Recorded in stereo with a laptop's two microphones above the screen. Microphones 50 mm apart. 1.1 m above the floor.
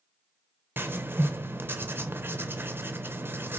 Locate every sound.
0.8 s writing: 45° right (ahead or behind), 0.6 m